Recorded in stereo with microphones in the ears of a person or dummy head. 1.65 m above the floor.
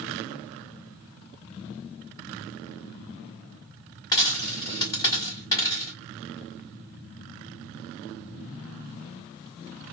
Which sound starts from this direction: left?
A dropped coin, at 4.1 s.